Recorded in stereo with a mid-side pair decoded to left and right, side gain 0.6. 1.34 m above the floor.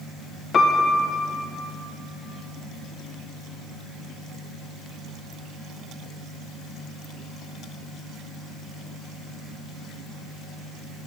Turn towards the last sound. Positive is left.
turn(degrees=35)